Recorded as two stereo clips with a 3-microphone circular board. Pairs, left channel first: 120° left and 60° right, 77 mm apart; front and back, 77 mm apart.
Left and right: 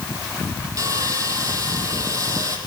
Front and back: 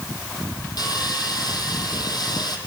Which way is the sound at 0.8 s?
20° right.